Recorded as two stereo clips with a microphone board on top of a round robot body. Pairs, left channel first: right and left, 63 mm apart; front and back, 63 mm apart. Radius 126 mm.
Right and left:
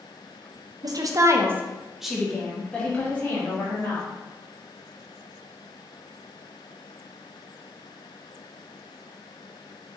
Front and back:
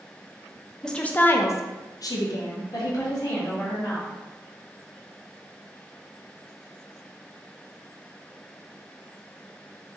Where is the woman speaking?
80° left, 0.6 m; by 4.1 s 35° right, 1.6 m.